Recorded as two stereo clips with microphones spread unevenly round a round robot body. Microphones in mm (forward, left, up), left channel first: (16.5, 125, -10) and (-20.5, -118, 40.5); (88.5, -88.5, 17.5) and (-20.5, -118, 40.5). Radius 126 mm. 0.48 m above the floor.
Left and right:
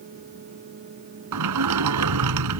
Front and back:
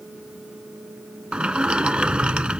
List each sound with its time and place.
1.3 s a sliding door: 85° right